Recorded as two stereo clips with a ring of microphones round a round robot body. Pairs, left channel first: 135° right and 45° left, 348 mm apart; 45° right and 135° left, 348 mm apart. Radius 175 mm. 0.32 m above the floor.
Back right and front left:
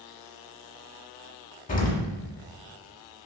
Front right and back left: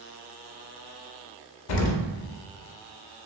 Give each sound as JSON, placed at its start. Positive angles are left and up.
{"t": 1.7, "sound": "an explosion", "azimuth_deg": -65, "distance_m": 0.6}